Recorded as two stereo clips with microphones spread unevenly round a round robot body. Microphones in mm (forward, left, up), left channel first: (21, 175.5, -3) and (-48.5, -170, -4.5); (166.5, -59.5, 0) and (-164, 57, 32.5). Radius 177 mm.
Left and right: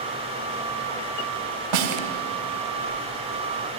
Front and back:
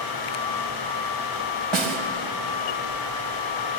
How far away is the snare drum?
About 3 m.